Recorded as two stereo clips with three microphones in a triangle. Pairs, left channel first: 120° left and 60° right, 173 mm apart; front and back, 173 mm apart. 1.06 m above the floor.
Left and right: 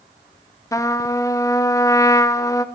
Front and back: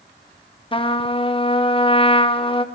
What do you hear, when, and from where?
0.7 s a trumpet: 50° left, 0.5 m